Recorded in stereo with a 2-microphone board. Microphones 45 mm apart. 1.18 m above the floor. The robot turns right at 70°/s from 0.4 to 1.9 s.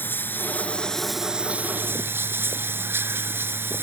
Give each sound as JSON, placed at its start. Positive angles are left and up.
{"t": 0.0, "sound": "running water", "azimuth_deg": 130}